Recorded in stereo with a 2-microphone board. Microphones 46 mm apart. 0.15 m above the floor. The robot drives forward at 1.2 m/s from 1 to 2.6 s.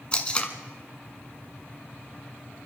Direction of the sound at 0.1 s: 25° left (ahead or behind).